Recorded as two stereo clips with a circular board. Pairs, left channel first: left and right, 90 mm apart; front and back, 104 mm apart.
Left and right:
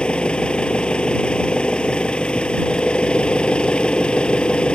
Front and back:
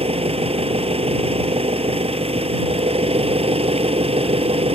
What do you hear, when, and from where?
0.0 s an engine running: 170° left